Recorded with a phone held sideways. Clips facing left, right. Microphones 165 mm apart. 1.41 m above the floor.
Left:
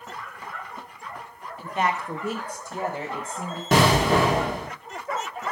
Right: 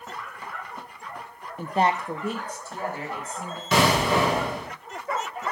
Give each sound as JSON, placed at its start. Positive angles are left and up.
{"t": 1.6, "sound": "a woman speaking", "side_deg": -50, "distance_m": 0.5}
{"t": 3.7, "sound": "an explosion", "side_deg": 50, "distance_m": 1.4}